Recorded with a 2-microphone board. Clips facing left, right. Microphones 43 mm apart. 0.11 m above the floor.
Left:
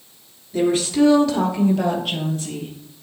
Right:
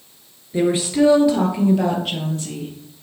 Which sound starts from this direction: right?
A woman speaking, at 0.5 s.